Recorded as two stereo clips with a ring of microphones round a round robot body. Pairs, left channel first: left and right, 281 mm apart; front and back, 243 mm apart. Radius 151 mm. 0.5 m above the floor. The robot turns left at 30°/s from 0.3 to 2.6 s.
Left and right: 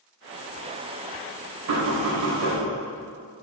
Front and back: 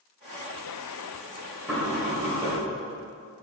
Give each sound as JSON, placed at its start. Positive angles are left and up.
{"t": 1.7, "sound": "knocking", "azimuth_deg": -90, "distance_m": 2.0}